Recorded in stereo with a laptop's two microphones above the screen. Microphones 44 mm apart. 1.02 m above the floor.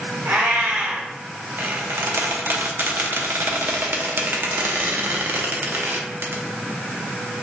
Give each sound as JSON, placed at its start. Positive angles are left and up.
{"t": 0.2, "sound": "a cat meowing", "side_deg": -55, "distance_m": 1.3}
{"t": 1.6, "sound": "a squeak", "side_deg": -55, "distance_m": 0.7}